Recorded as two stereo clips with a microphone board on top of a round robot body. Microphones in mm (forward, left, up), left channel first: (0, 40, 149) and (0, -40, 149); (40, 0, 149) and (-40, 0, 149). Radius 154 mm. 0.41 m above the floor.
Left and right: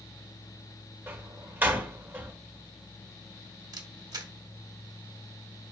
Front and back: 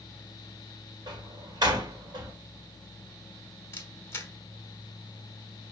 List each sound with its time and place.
1.1 s a door slam: 155° right, 1.4 m
3.7 s a camera shutter: 60° right, 1.2 m